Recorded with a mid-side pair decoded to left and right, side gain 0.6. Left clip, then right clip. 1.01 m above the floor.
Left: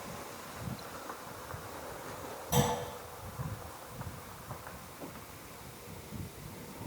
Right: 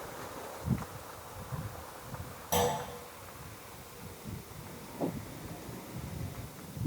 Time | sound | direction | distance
2.5 | a clunk | 30° right | 1.6 m